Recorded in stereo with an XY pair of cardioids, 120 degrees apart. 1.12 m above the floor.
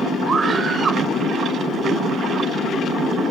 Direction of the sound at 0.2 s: 35° right.